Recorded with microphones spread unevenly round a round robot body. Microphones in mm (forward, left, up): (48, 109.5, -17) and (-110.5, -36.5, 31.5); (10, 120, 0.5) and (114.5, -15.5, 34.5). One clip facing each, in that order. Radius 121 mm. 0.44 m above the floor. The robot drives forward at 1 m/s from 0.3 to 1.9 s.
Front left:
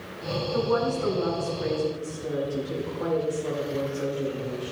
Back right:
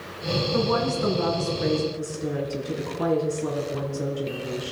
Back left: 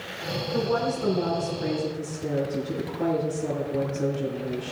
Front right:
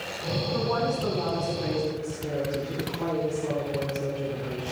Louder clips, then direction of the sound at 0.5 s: Front left 1 dB, back left 3 dB; 170° right.